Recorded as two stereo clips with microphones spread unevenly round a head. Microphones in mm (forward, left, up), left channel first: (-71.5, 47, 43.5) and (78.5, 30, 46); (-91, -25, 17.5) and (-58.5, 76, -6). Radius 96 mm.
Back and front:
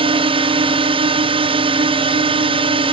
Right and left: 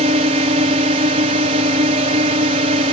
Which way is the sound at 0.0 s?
45° left.